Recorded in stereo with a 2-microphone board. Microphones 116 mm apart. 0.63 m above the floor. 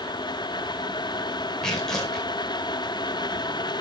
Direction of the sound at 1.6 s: 5° left (ahead or behind).